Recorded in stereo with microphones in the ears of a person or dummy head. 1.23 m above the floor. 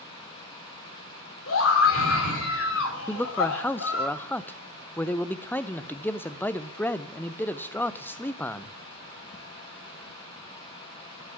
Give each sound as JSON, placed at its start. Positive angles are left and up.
{"t": 1.5, "sound": "a scream", "side_deg": 80, "distance_m": 3.0}
{"t": 3.1, "sound": "a man speaking", "side_deg": 10, "distance_m": 0.6}